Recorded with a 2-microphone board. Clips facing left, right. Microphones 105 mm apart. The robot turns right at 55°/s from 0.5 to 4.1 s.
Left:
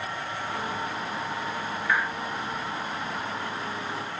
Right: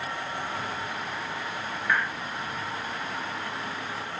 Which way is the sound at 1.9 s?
Centre (ahead or behind).